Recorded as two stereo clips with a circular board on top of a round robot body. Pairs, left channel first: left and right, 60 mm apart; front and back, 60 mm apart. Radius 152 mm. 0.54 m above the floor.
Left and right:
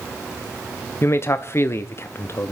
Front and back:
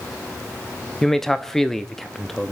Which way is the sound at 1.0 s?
80° left.